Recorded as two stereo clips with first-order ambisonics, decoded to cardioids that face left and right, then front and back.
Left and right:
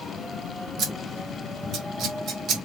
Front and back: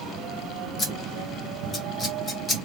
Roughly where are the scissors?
Ahead right.